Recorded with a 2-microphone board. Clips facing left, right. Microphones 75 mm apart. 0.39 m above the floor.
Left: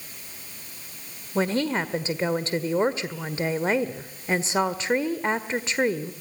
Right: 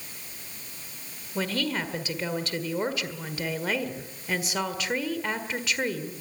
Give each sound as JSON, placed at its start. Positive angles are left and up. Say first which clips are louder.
{"t": 1.4, "sound": "a woman speaking", "louder": "left 5 dB", "side_deg": 30, "distance_m": 1.5}